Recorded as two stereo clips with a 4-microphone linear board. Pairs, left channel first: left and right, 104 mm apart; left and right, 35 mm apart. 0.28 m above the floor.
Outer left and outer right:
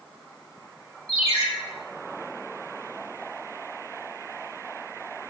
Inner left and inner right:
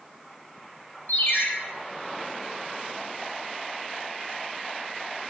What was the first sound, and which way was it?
A ringtone, 85° left.